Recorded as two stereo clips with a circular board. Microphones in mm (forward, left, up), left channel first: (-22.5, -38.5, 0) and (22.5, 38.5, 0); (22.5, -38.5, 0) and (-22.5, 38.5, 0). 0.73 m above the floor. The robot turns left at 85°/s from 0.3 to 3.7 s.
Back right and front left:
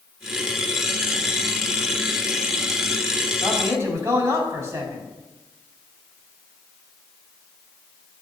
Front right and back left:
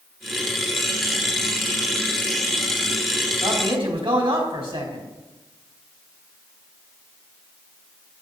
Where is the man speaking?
140° left, 4 m; by 5.1 s 115° left, 4 m.